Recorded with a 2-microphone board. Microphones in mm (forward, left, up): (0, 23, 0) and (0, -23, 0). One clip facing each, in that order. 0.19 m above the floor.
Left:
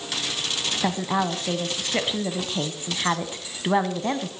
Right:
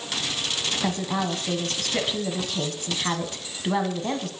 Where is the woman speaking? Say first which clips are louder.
Left 4 dB; 20° left (ahead or behind), 1.1 m.